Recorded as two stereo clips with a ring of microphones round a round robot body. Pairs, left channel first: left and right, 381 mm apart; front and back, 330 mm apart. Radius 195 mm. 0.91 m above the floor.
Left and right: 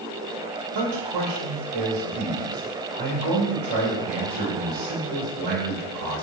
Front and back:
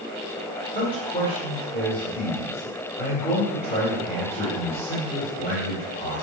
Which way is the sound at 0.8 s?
75° right.